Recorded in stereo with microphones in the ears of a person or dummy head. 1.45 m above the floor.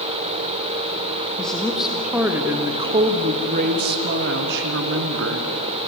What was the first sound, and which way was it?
A woman speaking, 5° left (ahead or behind).